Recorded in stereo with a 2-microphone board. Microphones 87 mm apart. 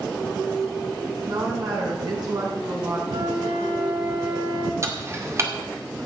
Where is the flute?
70° right (ahead or behind), 3.5 m.